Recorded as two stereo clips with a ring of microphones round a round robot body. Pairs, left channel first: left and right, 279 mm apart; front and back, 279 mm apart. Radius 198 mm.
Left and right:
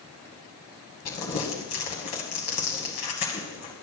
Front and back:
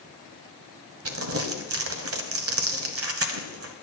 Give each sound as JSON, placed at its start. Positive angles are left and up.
{"t": 1.1, "sound": "crumpling", "azimuth_deg": 140, "distance_m": 1.1}